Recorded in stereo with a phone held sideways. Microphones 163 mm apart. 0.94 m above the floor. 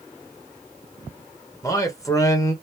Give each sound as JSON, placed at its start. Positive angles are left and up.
{"t": 1.6, "sound": "a man speaking", "side_deg": 20, "distance_m": 1.1}